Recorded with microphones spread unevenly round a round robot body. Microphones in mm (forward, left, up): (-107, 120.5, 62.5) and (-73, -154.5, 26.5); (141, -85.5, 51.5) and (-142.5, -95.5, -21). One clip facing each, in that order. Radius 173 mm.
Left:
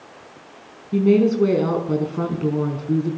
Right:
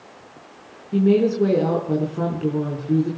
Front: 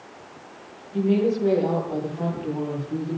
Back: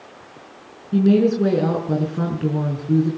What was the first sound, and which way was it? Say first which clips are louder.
A woman speaking: left 1 dB, back 5 dB; 175° left.